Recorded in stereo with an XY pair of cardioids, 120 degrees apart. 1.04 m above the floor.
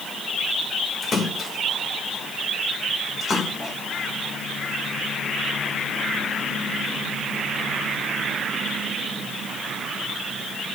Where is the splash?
35° left, 2.5 m.